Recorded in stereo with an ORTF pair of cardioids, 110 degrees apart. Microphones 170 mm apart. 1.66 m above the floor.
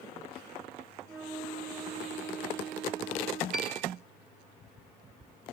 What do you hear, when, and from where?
1.1 s a flute: 50° right, 9.5 m
3.5 s a piano: 55° right, 7.5 m